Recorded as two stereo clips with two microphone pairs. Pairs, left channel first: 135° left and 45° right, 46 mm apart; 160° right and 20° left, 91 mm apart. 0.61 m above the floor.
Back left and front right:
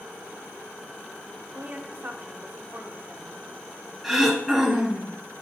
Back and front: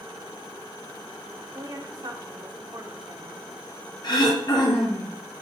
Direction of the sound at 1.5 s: 5° right.